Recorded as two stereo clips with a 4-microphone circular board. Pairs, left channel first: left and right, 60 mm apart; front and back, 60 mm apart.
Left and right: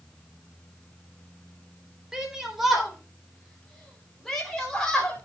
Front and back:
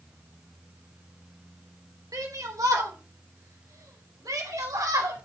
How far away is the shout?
About 3.5 m.